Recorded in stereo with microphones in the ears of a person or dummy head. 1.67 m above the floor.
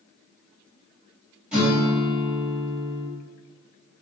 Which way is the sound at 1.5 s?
10° right (ahead or behind).